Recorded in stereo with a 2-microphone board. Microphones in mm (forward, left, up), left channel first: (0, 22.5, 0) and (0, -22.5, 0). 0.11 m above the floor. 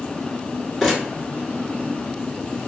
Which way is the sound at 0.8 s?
Centre (ahead or behind).